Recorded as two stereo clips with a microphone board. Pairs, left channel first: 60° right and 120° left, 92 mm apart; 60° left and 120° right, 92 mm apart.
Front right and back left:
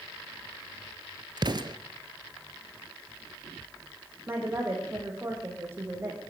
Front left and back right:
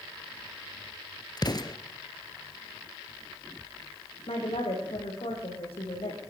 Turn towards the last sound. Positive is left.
turn(degrees=55)